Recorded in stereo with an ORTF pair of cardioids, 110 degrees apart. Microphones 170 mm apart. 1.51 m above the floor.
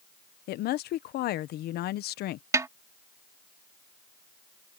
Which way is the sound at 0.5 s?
70° left.